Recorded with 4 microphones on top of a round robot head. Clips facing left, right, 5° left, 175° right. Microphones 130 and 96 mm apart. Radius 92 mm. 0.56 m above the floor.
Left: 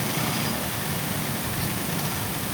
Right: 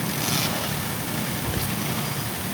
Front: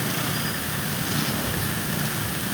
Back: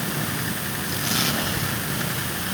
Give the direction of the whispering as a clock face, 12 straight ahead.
2 o'clock.